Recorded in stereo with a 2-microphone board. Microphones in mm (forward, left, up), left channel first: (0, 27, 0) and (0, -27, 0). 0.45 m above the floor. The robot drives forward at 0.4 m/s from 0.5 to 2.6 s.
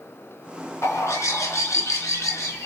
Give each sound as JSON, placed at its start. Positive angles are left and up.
{"t": 0.8, "sound": "a bird", "side_deg": 70, "distance_m": 3.5}